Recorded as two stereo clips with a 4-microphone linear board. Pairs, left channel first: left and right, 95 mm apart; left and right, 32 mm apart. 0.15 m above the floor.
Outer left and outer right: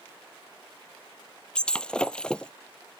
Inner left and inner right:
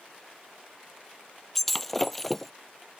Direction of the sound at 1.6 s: 10° left (ahead or behind).